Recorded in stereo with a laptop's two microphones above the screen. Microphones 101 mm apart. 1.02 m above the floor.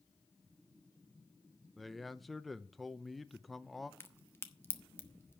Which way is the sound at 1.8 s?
Centre (ahead or behind).